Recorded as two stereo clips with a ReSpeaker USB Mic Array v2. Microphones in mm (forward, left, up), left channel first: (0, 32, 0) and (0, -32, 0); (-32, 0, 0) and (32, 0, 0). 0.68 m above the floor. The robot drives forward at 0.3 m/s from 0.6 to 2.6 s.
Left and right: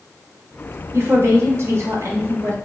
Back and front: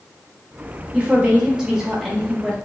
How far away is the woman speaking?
About 1.1 m.